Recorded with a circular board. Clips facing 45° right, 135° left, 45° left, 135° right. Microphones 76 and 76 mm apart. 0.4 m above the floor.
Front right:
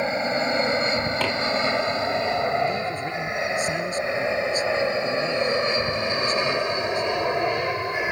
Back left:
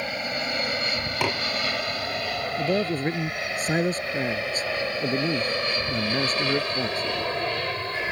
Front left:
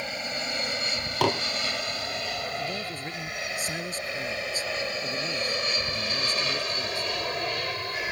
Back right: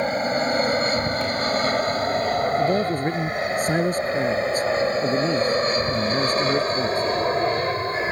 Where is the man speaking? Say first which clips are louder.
Even, back right 13 dB; 175° right.